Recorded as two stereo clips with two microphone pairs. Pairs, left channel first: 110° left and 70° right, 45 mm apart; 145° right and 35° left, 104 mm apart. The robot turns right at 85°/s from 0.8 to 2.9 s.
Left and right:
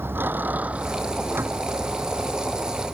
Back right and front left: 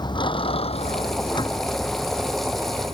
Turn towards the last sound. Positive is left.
turn(degrees=0)